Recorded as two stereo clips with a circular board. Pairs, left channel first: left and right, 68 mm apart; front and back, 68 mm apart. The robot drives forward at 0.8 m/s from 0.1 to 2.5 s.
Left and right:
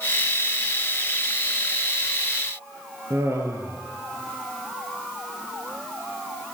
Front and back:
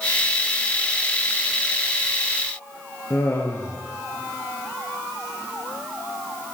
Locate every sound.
3.1 s laughter: 50° right, 2.5 m